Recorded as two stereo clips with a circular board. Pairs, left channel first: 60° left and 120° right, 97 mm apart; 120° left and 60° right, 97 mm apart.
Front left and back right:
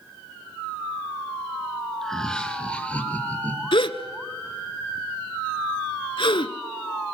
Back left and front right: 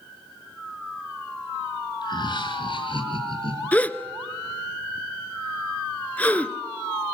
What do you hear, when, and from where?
2.0 s laughter: 145° left, 3 m; by 3.6 s 130° left, 4.5 m
3.7 s a gasp: 45° left, 0.9 m